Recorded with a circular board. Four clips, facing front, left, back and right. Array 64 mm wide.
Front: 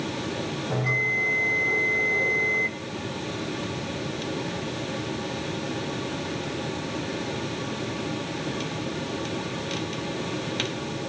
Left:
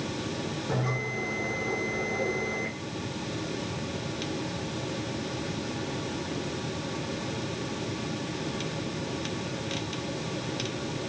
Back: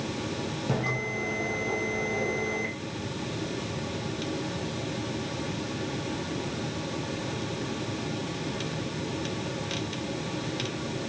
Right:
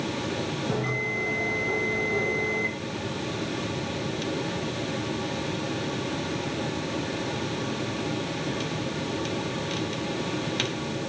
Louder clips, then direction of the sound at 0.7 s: Right 1 dB, front 5 dB; 165° right.